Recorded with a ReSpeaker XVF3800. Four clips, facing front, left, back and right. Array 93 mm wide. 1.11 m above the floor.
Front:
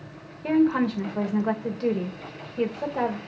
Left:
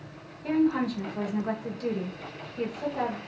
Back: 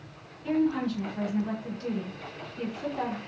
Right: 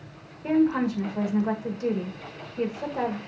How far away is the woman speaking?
About 1.7 m.